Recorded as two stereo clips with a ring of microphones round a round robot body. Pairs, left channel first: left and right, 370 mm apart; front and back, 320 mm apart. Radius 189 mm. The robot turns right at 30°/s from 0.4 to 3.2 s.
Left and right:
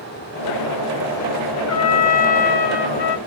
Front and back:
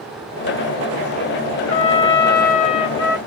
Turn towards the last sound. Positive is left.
turn(degrees=85)